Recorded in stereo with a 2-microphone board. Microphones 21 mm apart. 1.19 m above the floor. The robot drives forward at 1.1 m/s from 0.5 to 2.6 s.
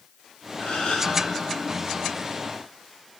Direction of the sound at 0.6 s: 85° left.